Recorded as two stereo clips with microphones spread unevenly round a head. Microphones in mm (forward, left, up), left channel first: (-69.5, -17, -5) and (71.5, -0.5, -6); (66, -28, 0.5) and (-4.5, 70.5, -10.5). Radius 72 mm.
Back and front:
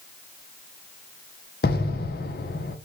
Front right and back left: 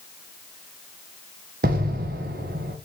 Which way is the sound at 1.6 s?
160° left.